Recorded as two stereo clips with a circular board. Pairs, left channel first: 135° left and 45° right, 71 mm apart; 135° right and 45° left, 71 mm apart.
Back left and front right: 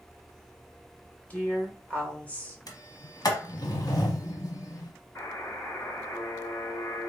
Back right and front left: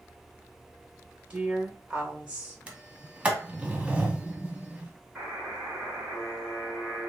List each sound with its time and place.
1.3 s a woman speaking: 95° left, 1.2 m
2.7 s a sliding door: 115° left, 0.7 m
5.2 s a buzzer: 120° left, 2.5 m